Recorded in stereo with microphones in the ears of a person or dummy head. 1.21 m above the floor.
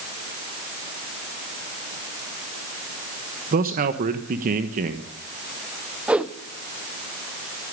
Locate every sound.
3.5 s a man speaking: 40° right (ahead or behind), 1.2 m
6.1 s a whoosh: 5° right (ahead or behind), 0.7 m